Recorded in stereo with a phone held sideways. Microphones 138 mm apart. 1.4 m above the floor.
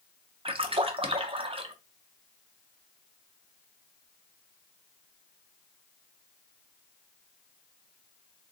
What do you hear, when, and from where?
0.5 s a splash: 40° right (ahead or behind), 0.6 m